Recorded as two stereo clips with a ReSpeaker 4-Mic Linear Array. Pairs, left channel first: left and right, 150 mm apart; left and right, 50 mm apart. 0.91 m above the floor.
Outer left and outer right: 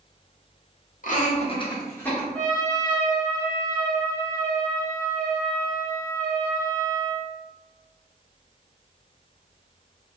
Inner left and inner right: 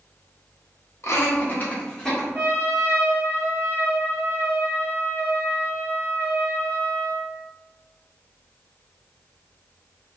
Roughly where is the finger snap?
No finger snap in this recording.